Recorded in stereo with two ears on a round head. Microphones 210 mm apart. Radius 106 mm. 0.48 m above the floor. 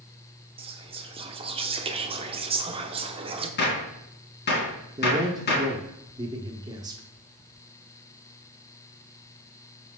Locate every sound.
0.6 s whispering: 25° right (ahead or behind), 1.0 m
3.6 s a gunshot: 50° left (ahead or behind), 2.5 m
5.0 s a man speaking: 15° right (ahead or behind), 0.8 m